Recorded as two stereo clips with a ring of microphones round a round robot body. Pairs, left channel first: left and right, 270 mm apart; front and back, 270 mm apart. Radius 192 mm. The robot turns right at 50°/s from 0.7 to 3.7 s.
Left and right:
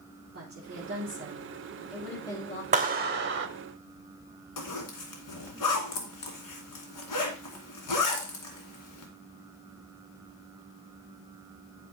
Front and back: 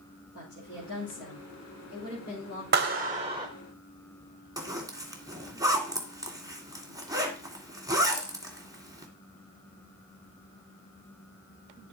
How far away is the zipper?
About 2.5 m.